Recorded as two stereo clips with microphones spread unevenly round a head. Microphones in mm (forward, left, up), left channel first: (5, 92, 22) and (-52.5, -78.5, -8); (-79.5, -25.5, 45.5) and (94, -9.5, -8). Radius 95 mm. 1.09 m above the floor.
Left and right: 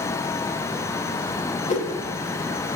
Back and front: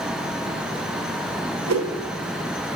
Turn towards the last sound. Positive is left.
turn(degrees=20)